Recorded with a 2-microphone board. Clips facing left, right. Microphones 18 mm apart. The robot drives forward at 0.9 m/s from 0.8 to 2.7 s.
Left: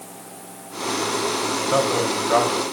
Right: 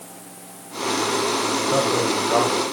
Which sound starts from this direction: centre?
A man speaking, at 1.7 s.